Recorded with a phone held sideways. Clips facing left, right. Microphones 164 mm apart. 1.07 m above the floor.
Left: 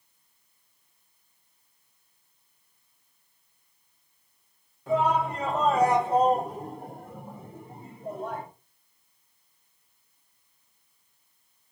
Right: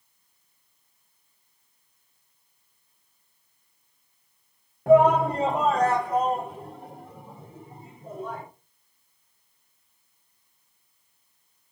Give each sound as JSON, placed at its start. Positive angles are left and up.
{"t": 4.9, "sound": "a shout", "side_deg": -60, "distance_m": 1.0}